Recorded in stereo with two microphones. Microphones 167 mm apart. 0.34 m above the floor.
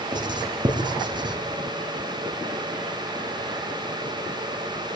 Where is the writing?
25° right (ahead or behind), 3 m.